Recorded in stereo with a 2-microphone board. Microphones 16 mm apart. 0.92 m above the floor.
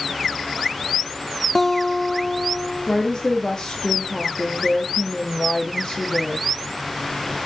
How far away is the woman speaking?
About 1.7 m.